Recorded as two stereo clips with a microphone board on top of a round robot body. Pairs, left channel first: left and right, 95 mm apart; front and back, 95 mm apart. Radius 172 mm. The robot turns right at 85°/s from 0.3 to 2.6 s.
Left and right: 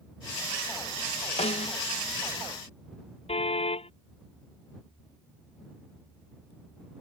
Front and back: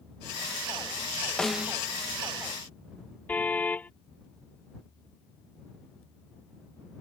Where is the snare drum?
85° left; by 1.8 s 115° left.